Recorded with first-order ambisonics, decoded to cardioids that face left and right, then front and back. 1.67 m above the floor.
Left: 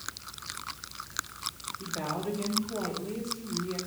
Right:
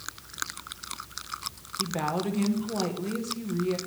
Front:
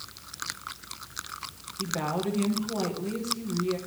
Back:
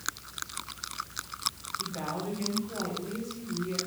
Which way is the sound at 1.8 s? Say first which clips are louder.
Right 5 dB, front 6 dB; 65° right.